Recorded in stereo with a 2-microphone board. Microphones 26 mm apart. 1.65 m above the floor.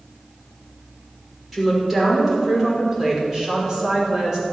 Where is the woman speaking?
5° right (ahead or behind), 5.5 m; by 4.4 s 30° right (ahead or behind), 5 m.